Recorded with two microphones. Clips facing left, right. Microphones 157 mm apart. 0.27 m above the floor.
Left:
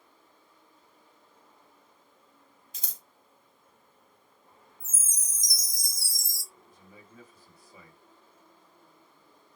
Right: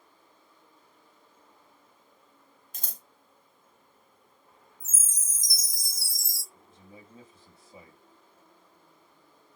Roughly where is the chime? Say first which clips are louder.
Even; centre.